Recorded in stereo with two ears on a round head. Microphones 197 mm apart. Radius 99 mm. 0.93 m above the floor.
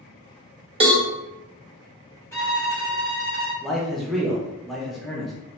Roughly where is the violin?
Centre.